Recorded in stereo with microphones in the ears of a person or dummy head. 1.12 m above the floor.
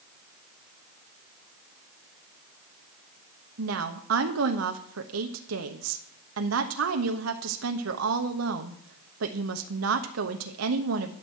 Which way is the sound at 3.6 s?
65° right (ahead or behind).